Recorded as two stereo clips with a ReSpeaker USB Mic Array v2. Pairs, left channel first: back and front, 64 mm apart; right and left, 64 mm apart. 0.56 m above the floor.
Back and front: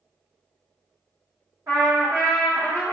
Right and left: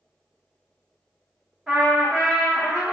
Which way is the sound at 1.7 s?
5° left.